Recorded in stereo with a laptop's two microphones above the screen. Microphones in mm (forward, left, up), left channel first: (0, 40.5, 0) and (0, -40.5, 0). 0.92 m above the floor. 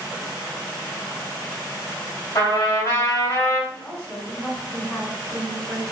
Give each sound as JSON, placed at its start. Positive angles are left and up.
{"t": 2.4, "sound": "a trumpet", "side_deg": 50, "distance_m": 1.8}
{"t": 3.7, "sound": "a woman speaking", "side_deg": 40, "distance_m": 1.8}